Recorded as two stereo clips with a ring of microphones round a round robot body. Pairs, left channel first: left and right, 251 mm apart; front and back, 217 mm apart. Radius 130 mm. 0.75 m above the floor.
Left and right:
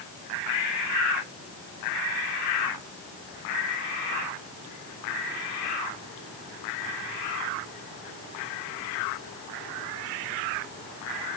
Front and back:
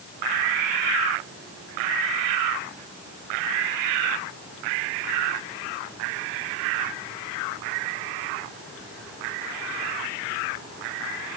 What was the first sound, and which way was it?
Only background noise.